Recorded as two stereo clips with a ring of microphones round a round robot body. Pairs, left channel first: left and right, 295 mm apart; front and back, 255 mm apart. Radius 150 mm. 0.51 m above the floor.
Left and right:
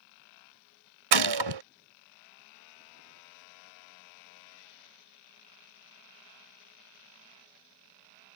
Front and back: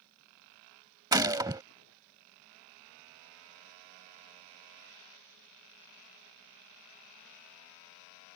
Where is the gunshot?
100° right.